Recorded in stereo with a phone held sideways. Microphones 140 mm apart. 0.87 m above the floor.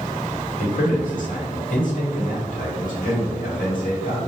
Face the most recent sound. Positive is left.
turn(degrees=75)  # may be behind; listen again after turning